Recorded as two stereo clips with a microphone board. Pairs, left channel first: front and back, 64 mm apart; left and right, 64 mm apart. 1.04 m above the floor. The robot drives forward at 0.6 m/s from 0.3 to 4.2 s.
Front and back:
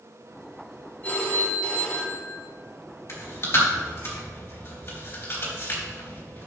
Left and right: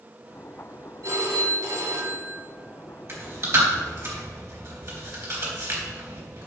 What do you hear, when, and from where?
1.0 s a phone ringing: 60° right, 2.5 m; by 2.5 s 85° right, 2 m
3.1 s chewing: 45° right, 4 m; by 6.5 s 55° right, 3.5 m